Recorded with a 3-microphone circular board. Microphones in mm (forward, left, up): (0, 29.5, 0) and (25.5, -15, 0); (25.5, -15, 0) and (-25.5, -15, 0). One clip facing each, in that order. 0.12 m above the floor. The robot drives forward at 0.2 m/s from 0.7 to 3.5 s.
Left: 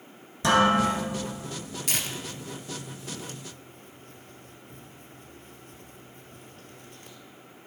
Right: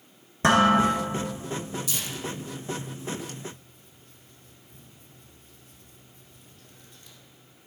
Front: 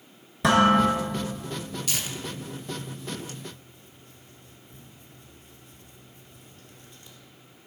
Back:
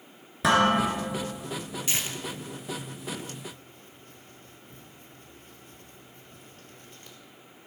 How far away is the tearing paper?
About 0.7 m.